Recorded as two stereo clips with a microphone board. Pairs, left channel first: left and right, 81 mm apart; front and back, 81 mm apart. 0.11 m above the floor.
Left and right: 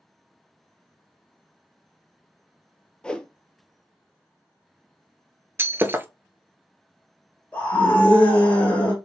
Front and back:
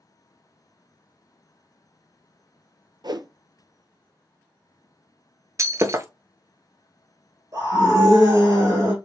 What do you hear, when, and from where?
3.0 s a whoosh: 165° left, 0.5 m
5.6 s breaking glass: 145° right, 0.5 m
7.5 s a scream: 150° left, 1.9 m